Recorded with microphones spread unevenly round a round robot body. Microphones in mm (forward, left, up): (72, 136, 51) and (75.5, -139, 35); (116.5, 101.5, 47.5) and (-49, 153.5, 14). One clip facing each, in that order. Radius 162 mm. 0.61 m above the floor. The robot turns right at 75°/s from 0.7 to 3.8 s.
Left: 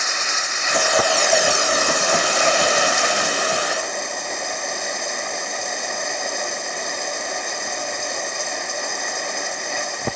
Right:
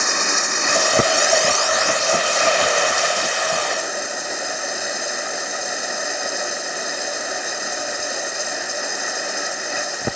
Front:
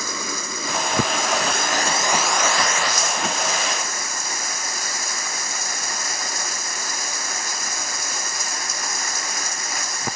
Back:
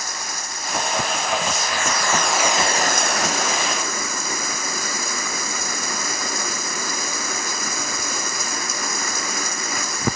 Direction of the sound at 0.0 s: 50° right.